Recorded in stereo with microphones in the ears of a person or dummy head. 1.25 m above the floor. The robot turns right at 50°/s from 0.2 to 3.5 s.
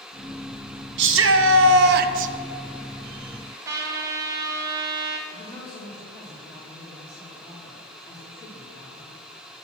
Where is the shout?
110° right, 1.1 m; by 2.3 s 45° right, 1.1 m.